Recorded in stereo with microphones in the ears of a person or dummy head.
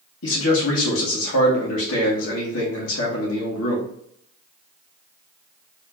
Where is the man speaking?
75° left (ahead or behind), 2 m.